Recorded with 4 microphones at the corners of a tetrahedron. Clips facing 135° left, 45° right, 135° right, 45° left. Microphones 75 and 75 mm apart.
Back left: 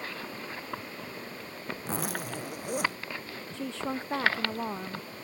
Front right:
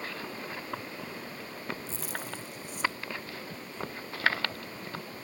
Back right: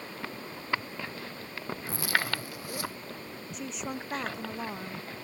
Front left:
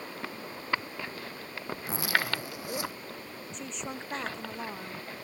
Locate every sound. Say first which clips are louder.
1.9 s a zipper: back left 5 dB, front left 1 dB; 115° left
3.5 s a woman speaking: back left 10 dB, back right 3 dB; 140° left